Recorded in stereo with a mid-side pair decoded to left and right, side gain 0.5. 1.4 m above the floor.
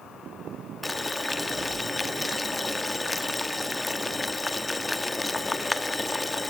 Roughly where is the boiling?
Ahead.